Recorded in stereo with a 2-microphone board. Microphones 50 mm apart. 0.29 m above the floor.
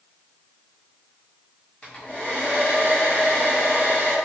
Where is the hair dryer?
30° left (ahead or behind), 1.1 m.